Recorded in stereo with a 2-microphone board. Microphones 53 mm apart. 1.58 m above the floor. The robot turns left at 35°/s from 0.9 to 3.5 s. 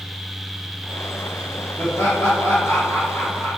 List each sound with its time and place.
1.8 s laughter: 100° left, 1.6 m; by 3.5 s 35° left, 1.6 m